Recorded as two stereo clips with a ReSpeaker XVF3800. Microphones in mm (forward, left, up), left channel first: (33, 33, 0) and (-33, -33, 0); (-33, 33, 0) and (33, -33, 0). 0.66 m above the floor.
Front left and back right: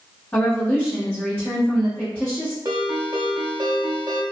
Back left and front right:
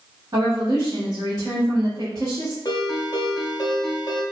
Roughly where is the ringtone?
Behind.